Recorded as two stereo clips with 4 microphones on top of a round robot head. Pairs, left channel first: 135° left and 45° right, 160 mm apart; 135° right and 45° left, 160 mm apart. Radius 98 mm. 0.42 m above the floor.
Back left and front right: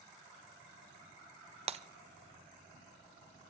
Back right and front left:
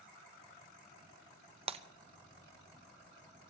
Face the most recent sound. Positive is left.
turn(degrees=0)